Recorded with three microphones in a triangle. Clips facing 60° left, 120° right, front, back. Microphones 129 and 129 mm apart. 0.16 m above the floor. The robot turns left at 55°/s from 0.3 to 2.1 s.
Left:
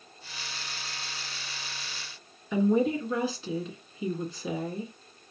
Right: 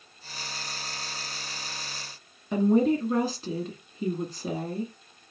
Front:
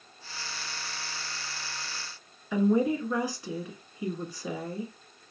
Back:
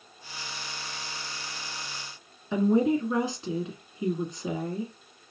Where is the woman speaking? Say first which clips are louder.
Right 2 dB, back 2 dB; 125° right, 1.8 m.